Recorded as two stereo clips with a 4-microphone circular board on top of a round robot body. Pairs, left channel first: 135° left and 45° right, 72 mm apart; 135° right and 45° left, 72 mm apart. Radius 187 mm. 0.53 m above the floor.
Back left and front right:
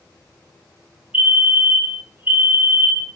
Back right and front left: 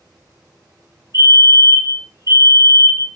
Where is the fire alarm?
120° right, 4 m.